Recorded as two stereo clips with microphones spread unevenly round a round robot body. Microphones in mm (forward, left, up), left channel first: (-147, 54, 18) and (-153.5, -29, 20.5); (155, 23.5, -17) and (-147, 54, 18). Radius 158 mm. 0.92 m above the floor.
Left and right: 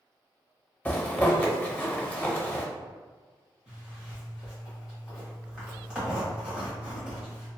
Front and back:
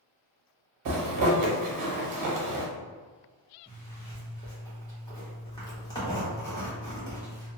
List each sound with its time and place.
0.8 s a zipper: 155° left, 0.8 m
3.7 s a zipper: 15° right, 0.8 m